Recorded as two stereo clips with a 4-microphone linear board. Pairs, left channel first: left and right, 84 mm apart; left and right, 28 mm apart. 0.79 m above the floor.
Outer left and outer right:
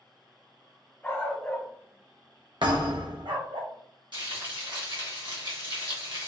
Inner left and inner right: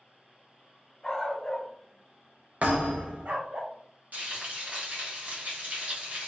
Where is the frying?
65° right (ahead or behind), 1.5 m.